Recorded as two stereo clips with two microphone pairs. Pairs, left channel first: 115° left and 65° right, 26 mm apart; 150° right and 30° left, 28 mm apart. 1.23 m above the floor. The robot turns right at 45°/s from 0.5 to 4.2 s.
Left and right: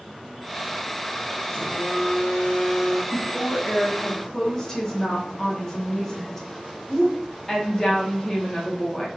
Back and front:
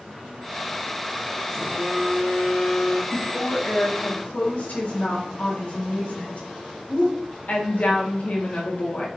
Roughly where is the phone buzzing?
Behind left.